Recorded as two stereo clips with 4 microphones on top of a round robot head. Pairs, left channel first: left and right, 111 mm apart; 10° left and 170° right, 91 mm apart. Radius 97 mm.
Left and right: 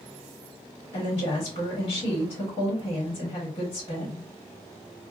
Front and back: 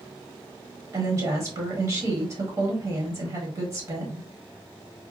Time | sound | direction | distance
0.9 | a woman speaking | 145° left | 1.2 m